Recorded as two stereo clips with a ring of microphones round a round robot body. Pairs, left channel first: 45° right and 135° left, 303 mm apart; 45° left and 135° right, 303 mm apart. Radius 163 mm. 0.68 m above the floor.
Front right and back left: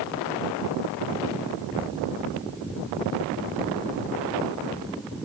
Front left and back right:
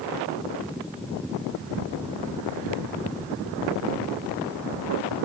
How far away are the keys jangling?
No keys jangling in this recording.